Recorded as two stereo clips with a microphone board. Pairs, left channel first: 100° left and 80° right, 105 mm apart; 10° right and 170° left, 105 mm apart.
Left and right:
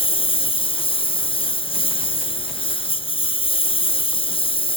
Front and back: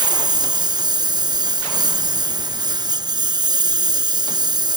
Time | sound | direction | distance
0.0 | a lawn mower | 125° left | ?